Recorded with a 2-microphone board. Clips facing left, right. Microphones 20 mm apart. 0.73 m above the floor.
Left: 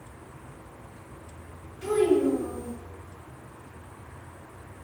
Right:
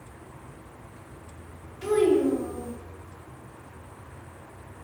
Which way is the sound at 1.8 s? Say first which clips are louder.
Right 1 dB; 40° right (ahead or behind).